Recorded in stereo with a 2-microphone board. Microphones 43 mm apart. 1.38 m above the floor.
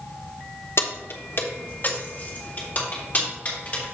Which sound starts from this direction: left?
Keys jangling, at 0.8 s.